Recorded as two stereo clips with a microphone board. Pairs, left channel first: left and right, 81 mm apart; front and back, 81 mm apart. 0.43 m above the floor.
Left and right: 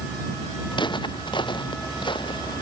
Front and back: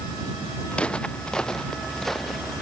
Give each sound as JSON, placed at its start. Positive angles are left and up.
{"t": 0.7, "sound": "footsteps", "azimuth_deg": 75}